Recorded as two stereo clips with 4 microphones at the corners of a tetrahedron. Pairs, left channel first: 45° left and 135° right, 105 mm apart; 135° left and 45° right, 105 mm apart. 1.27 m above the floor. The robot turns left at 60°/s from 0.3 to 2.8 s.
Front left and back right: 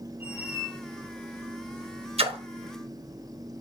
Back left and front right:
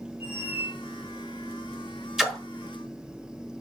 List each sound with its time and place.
0.2 s a squeak: 155° left, 1.1 m; by 0.8 s 125° left, 1.1 m
2.2 s a splash: 130° right, 0.7 m; by 2.4 s 145° right, 0.7 m